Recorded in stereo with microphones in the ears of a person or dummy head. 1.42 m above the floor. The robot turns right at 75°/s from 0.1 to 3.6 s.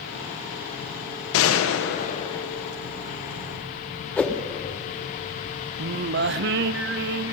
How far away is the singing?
About 0.5 m.